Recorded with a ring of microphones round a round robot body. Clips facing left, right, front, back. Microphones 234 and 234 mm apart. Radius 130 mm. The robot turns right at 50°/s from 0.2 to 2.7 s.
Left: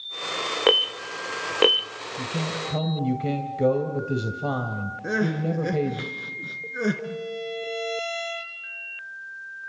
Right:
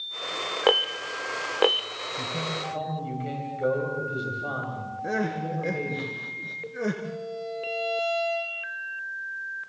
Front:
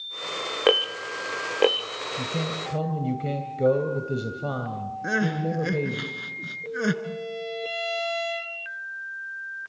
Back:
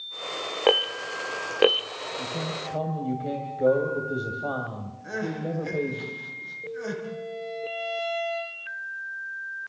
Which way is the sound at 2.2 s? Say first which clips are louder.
Left 3 dB, front 3 dB; 35° left.